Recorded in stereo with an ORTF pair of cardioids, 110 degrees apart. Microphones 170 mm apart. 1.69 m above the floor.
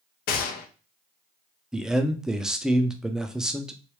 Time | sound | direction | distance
0.3 | a gunshot | 65° left | 0.7 m
1.7 | a man speaking | 5° right | 0.6 m